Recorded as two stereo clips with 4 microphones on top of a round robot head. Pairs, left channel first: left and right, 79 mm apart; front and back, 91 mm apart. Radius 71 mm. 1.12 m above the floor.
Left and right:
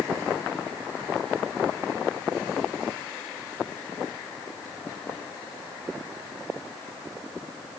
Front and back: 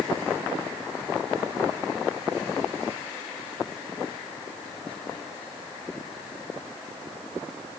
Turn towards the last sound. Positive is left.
No sound to turn to.